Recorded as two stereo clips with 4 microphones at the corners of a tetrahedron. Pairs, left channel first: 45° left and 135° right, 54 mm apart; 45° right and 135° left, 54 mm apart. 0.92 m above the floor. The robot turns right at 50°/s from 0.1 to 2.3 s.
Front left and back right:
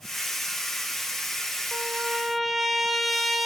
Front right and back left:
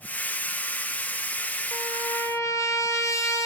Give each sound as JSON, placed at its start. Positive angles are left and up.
{"t": 1.7, "sound": "a trumpet", "azimuth_deg": -75, "distance_m": 3.0}